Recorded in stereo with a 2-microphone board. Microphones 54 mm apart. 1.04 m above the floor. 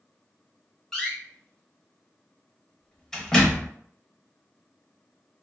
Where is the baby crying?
I don't hear a baby crying.